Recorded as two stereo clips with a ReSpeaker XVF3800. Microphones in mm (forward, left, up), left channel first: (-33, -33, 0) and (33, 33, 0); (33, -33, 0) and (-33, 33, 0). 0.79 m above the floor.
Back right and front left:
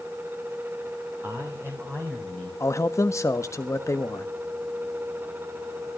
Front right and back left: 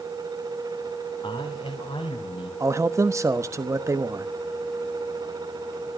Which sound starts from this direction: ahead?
A man speaking, at 1.2 s.